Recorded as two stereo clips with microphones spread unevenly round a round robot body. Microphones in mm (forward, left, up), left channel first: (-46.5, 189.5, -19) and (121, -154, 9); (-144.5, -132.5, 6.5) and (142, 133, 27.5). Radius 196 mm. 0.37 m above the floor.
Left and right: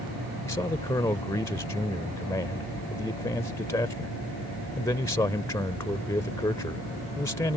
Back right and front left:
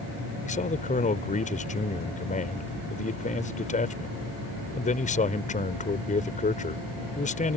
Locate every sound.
0.5 s a man speaking: 175° right